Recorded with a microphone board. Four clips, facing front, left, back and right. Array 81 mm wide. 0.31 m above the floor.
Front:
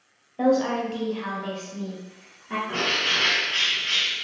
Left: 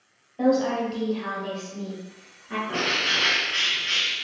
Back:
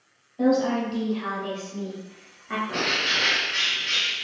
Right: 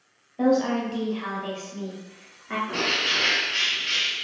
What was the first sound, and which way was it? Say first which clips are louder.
A woman speaking: even, even; 5° right.